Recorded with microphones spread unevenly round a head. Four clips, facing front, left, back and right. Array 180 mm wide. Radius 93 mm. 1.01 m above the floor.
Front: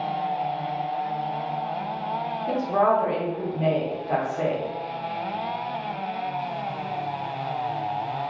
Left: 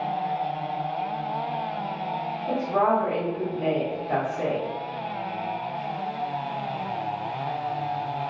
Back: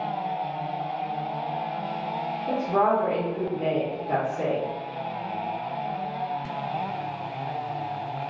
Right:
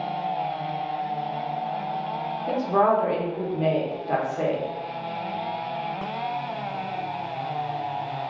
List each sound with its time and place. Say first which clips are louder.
2.5 s a woman speaking: right 2 dB, front 1 dB; 105° right, 1.0 m